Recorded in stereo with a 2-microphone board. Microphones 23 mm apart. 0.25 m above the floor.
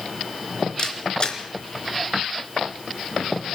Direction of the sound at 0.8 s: 40° left (ahead or behind).